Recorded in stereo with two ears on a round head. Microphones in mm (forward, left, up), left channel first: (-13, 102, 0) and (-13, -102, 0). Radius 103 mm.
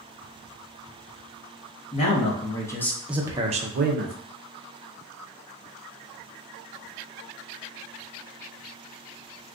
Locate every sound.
1.9 s a man speaking: 30° left (ahead or behind), 1.1 m; by 4.2 s 55° right (ahead or behind), 0.7 m